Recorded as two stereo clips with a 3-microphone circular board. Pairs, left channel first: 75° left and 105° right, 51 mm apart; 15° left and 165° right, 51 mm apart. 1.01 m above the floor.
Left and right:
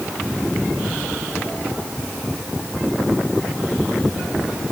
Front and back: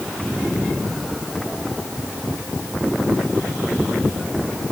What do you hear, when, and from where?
Only background noise.